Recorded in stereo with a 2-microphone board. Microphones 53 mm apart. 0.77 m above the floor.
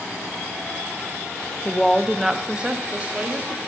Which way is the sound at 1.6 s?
20° left (ahead or behind).